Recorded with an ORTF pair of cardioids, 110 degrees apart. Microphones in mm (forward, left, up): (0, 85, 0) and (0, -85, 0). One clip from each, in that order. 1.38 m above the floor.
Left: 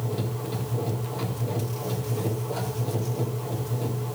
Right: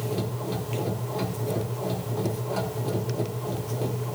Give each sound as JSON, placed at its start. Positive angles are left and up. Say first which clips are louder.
{"t": 0.0, "sound": "a machine running", "louder": "right 1 dB", "azimuth_deg": -20, "distance_m": 5.0}